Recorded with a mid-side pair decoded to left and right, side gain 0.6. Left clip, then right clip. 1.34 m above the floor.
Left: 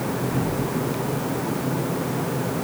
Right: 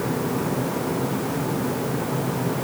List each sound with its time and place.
Only background noise.